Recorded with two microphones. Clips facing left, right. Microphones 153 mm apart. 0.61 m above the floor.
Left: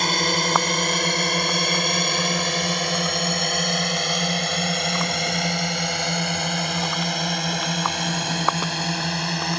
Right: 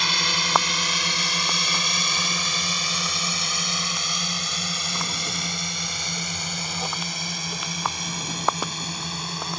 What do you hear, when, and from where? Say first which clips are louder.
0.0 s a drone: left 7 dB; 50° left (ahead or behind); by 9.6 s 75° left (ahead or behind)